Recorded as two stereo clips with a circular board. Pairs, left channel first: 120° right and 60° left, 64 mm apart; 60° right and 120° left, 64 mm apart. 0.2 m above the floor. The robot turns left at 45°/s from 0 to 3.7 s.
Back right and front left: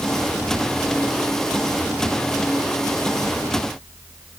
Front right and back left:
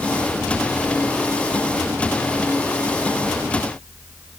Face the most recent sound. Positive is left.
No sound to turn to.